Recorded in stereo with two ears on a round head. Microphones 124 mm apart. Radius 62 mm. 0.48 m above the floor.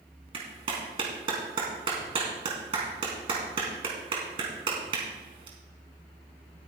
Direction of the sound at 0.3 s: 40° right (ahead or behind).